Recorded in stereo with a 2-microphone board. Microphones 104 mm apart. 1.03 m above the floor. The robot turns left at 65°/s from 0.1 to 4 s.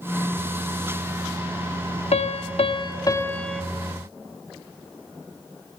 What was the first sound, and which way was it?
A piano, 95° left.